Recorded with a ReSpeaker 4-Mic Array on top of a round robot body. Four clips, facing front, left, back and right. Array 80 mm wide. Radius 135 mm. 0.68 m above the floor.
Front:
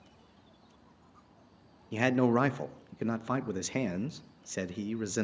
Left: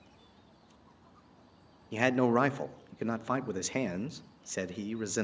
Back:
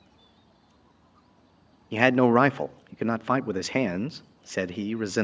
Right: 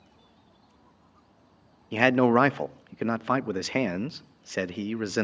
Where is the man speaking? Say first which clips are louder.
Right 6 dB, back 7 dB; 140° right, 0.6 m.